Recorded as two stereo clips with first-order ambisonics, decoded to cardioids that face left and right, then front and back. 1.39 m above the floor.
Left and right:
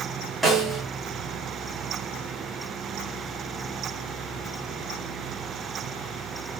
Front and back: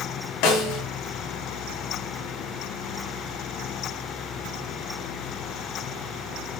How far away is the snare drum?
About 4 m.